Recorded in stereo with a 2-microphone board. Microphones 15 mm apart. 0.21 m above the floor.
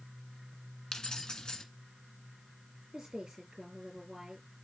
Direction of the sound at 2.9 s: 60° right (ahead or behind).